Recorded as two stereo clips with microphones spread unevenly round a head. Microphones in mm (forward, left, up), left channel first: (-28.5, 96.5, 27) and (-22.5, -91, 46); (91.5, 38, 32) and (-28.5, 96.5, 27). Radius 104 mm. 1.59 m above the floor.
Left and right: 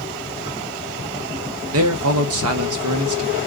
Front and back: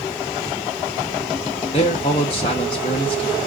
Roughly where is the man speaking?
Right.